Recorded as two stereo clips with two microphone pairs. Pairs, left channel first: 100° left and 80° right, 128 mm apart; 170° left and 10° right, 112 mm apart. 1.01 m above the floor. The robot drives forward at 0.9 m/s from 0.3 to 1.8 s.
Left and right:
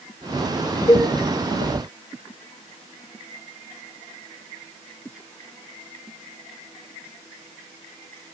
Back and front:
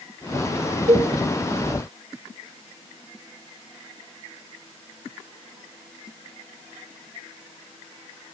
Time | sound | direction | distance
0.9 | a cowbell | 30° left | 1.6 m